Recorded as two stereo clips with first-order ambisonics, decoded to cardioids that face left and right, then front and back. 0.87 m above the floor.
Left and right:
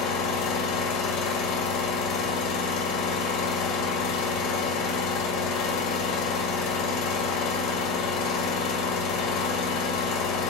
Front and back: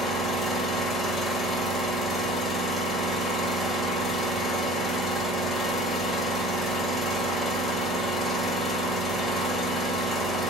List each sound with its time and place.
0.0 s an engine running: 95° left, 1.1 m